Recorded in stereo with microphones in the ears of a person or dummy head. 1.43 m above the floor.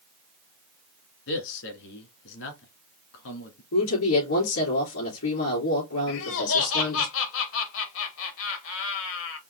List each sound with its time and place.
1.3 s a man speaking: 70° left (ahead or behind), 1.8 m
3.7 s a woman speaking: 85° left, 3.5 m
6.1 s laughter: 75° left (ahead or behind), 1.4 m